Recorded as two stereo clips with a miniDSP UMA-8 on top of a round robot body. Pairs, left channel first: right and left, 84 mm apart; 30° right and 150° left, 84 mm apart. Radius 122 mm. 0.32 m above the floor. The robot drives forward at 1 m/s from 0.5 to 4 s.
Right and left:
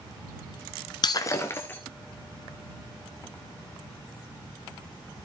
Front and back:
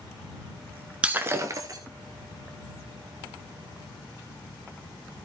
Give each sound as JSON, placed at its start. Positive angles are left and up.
{"t": 1.0, "sound": "breaking glass", "azimuth_deg": -130, "distance_m": 0.6}